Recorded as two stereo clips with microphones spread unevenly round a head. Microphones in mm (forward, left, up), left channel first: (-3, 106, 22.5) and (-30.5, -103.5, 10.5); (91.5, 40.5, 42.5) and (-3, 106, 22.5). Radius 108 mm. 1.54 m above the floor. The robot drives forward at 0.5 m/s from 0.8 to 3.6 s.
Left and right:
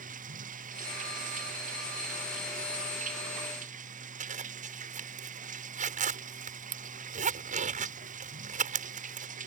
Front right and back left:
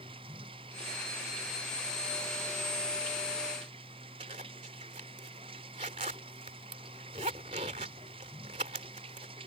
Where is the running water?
150° right; by 9.5 s 155° right.